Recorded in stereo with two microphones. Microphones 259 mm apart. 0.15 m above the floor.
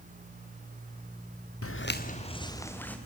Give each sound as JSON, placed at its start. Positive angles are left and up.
{"t": 1.6, "sound": "footsteps", "side_deg": 65, "distance_m": 0.8}